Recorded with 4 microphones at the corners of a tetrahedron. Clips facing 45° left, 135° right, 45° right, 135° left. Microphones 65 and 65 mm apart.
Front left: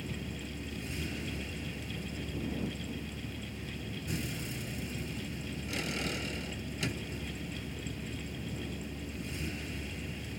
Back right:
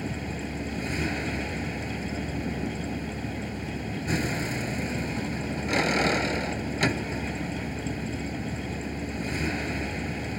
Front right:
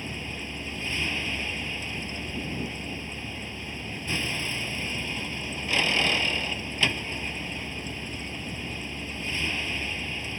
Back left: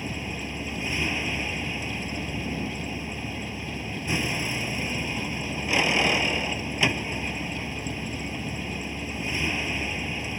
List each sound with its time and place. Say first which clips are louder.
0.0 s a vehicle: back right 8 dB, back left 3 dB; 150° right